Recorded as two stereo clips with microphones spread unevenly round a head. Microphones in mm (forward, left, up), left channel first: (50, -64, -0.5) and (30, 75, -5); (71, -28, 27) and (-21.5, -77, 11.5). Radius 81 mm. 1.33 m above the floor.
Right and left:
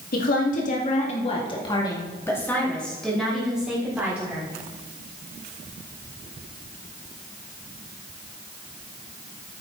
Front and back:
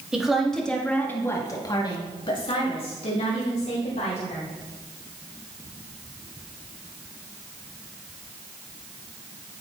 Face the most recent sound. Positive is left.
turn(degrees=20)